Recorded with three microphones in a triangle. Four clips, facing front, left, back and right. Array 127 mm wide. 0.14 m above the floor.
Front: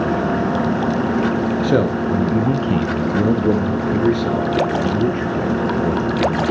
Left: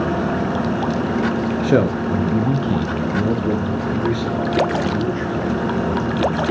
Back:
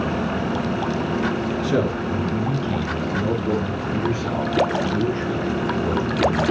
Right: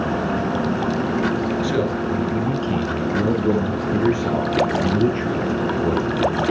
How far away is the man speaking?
About 2.5 m.